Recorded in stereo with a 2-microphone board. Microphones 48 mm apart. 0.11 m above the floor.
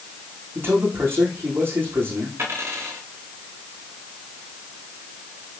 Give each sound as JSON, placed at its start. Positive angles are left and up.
{"t": 0.6, "sound": "a man speaking", "side_deg": -50, "distance_m": 9.5}
{"t": 2.4, "sound": "a dropped coin", "side_deg": -60, "distance_m": 9.5}